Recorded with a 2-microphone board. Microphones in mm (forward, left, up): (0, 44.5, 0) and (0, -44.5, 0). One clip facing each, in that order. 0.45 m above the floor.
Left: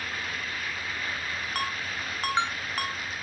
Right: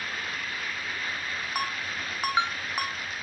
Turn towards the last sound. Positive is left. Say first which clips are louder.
# right 1 dB
turn(degrees=-10)  # may be behind; listen again after turning